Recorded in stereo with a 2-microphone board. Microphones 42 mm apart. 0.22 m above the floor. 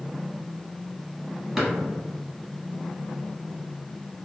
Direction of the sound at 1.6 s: 5° right (ahead or behind).